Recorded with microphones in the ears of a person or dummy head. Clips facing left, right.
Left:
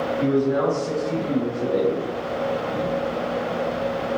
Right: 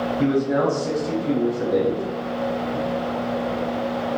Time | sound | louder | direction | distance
0.2 | a man speaking | even | 75° right (ahead or behind) | 1.4 m